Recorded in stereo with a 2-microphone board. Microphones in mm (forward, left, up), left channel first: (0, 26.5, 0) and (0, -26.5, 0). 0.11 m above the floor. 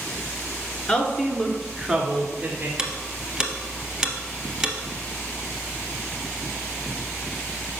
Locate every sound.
0.9 s a woman speaking: 25° left (ahead or behind), 1.2 m; by 2.7 s 25° right (ahead or behind), 1.5 m
2.8 s ticking: 15° right (ahead or behind), 0.8 m